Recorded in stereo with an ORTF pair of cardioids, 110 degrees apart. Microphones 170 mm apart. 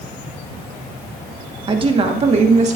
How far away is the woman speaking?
About 1.1 m.